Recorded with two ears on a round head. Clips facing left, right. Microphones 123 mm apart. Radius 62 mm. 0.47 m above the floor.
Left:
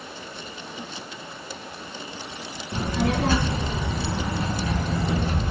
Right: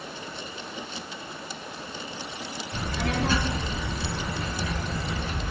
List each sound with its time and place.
2.7 s a child speaking: 40° left (ahead or behind), 3 m; by 5.5 s 35° left (ahead or behind), 1.1 m